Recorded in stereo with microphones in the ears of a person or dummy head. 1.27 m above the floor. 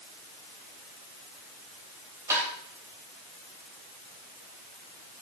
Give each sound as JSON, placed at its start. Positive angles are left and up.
{"t": 2.3, "sound": "tapping", "side_deg": -15, "distance_m": 3.0}